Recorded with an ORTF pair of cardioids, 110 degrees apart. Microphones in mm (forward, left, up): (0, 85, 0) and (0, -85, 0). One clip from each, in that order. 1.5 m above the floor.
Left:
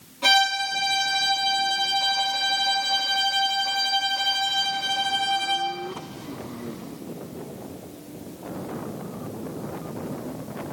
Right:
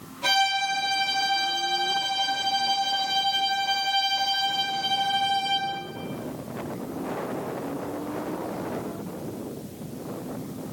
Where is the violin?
40° left, 4.5 m.